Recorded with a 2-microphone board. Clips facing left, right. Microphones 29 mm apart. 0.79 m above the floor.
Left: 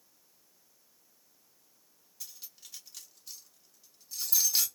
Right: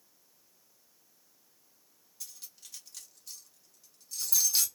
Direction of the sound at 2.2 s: 5° left (ahead or behind).